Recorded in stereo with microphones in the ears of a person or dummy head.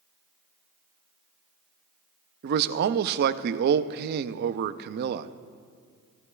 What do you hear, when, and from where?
2.4 s a man speaking: 60° right (ahead or behind), 0.6 m